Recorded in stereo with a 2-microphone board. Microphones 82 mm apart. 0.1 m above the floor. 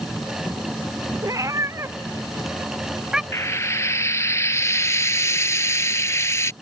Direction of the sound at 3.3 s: 35° left (ahead or behind).